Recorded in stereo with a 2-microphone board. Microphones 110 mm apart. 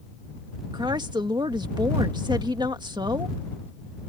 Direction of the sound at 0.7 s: 40° right (ahead or behind).